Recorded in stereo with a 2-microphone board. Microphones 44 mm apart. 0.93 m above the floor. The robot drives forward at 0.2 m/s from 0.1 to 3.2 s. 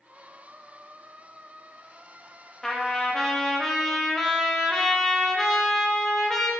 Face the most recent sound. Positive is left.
turn(degrees=10)  # may be behind; listen again after turning